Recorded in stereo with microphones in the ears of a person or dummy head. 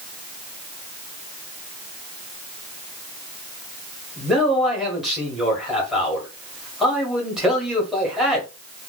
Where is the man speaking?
5° right (ahead or behind), 1.1 m.